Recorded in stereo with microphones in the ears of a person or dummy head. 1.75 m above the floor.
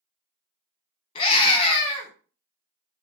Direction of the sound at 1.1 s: 30° left (ahead or behind).